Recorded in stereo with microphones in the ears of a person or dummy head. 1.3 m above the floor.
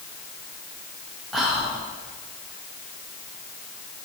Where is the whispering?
Centre (ahead or behind), 1.5 m.